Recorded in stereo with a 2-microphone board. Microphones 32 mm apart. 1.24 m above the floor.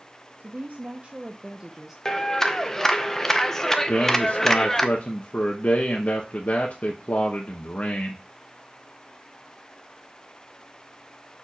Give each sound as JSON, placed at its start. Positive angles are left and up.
{"t": 0.4, "sound": "a woman speaking", "side_deg": -70, "distance_m": 0.8}
{"t": 2.0, "sound": "a clap", "side_deg": 15, "distance_m": 0.7}
{"t": 3.9, "sound": "a man speaking", "side_deg": 60, "distance_m": 1.0}